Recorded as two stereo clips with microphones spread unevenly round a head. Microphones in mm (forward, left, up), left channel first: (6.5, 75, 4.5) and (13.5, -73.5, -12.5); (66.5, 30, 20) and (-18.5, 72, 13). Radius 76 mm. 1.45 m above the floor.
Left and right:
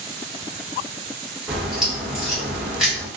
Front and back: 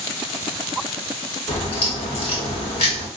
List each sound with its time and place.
1.5 s a crack: 5° right, 1.2 m